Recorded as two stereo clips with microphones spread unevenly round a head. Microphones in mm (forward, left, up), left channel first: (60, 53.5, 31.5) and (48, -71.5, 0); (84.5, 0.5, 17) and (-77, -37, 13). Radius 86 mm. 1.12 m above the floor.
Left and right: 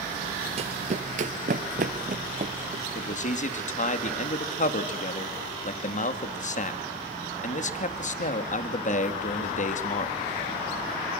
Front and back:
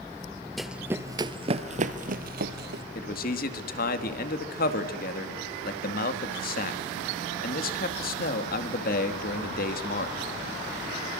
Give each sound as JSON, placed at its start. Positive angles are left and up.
{"t": 0.6, "sound": "running footsteps", "azimuth_deg": -75, "distance_m": 1.2}
{"t": 3.0, "sound": "a man speaking", "azimuth_deg": 55, "distance_m": 2.5}